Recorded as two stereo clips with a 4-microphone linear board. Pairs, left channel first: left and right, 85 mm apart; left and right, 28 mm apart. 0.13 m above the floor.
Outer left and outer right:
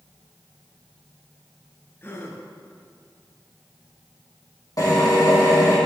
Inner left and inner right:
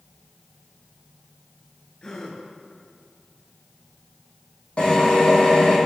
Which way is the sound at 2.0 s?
25° left (ahead or behind).